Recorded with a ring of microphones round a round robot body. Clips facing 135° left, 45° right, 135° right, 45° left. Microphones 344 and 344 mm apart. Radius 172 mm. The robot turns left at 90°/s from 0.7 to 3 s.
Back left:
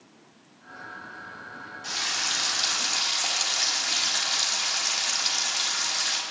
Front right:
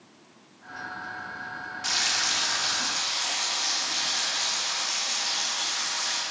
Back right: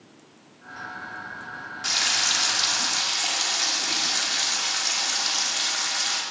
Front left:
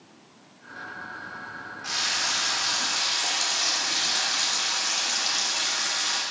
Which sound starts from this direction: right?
Frying, at 1.8 s.